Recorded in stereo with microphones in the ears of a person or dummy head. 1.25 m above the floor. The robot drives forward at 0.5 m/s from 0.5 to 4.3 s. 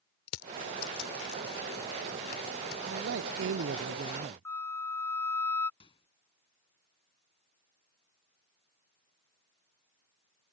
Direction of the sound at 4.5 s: 10° left (ahead or behind).